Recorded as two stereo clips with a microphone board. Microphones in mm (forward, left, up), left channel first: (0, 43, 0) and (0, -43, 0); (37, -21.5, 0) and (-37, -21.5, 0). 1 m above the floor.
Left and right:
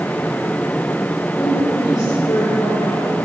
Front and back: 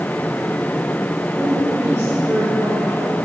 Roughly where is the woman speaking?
Behind left.